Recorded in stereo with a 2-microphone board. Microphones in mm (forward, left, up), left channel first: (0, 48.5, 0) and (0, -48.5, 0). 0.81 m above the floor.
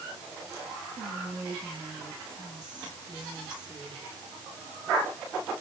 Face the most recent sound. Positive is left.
turn(degrees=-40)  # may be behind; listen again after turning